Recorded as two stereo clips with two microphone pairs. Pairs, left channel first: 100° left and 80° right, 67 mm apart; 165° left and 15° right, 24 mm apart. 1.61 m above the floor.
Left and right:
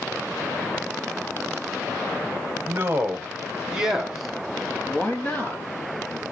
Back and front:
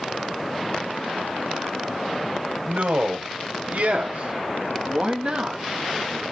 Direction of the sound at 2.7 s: 25° right.